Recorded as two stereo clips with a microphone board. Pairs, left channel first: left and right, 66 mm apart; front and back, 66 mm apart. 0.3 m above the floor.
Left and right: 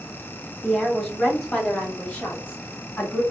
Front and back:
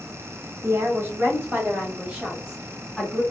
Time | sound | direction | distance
0.6 | a woman speaking | 175° left | 1.6 m